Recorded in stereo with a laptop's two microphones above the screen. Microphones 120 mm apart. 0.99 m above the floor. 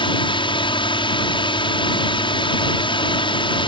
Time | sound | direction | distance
0.0 | a drone | 45° left (ahead or behind) | ?